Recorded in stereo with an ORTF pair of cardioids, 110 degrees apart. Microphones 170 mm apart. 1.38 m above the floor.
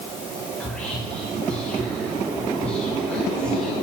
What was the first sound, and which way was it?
Whispering, 5° left.